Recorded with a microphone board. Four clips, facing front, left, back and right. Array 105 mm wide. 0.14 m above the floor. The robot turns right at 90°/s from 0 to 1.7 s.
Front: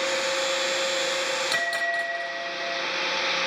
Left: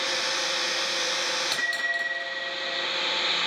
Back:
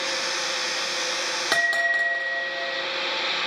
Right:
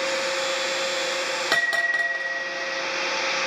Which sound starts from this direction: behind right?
A bell, at 1.5 s.